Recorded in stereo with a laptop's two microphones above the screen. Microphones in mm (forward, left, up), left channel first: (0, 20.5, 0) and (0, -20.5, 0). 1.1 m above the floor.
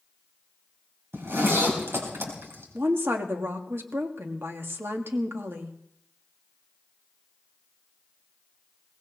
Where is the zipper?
70° right (ahead or behind), 4 m.